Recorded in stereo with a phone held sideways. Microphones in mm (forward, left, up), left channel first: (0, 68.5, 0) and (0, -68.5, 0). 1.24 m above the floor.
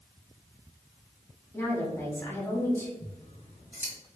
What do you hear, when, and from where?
1.5 s a woman speaking: 20° left (ahead or behind), 1.5 m
3.0 s scissors: 65° left (ahead or behind), 1.2 m